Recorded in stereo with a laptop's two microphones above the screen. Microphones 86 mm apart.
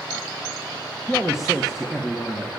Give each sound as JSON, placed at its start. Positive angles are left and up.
{"t": 1.1, "sound": "a man speaking", "side_deg": -5, "distance_m": 1.5}